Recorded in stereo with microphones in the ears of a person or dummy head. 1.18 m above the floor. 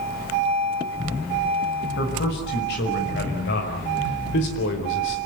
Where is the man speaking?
55° left (ahead or behind), 6 m; by 5.2 s 60° left (ahead or behind), 4 m.